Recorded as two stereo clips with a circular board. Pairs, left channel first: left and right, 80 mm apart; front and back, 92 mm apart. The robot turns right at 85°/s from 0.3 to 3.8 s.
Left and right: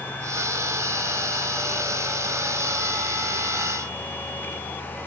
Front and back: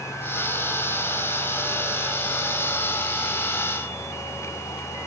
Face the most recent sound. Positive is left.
No sound to turn to.